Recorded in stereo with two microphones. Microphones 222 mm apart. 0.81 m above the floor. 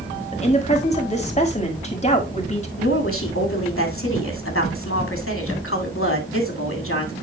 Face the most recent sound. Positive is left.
turn(degrees=70)  # may be behind; listen again after turning